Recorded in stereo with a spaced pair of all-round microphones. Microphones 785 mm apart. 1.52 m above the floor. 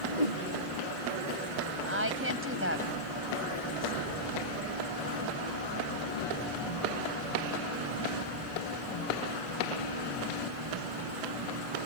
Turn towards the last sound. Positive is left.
turn(degrees=-15)  # may be behind; listen again after turning